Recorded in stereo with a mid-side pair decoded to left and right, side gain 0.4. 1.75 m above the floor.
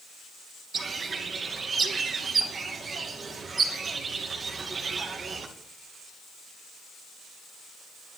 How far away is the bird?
About 2.5 m.